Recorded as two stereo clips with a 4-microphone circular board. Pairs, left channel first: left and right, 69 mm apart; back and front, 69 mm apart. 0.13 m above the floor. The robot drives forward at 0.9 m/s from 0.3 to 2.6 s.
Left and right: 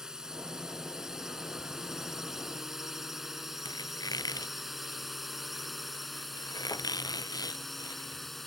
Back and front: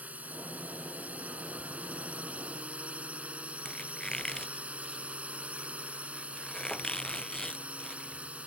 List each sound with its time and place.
0.0 s a drone: 20° right; by 8.5 s 5° left
3.6 s a squeak: 100° left